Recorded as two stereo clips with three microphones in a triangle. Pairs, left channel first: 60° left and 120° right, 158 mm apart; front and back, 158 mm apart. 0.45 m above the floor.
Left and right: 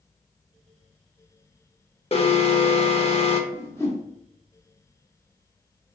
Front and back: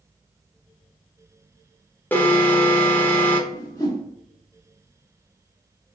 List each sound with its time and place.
2.1 s an alarm: 70° left, 0.7 m
3.5 s a whoosh: 20° left, 1.2 m